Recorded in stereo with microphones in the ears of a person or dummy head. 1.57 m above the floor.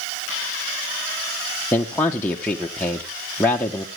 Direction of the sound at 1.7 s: 10° left (ahead or behind).